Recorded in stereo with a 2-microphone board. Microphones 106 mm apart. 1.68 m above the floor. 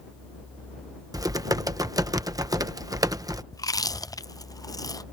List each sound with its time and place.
1.1 s typing on a keyboard: 35° right (ahead or behind)
3.5 s chewing: 35° left (ahead or behind)